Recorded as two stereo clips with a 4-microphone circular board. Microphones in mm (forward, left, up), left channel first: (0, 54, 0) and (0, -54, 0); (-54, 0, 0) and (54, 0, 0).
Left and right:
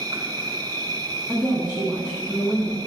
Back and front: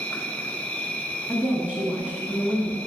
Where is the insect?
110° right, 0.8 m.